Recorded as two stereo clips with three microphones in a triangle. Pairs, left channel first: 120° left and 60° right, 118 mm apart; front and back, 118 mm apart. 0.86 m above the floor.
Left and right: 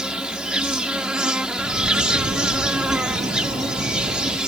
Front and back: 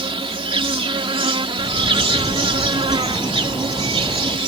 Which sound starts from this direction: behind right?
An insect, at 0.0 s.